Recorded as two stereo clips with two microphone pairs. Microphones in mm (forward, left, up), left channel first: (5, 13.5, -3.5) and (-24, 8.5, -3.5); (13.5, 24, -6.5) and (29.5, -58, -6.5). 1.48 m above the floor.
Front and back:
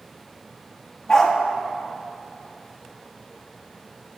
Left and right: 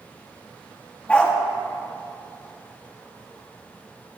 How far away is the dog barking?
About 1.0 m.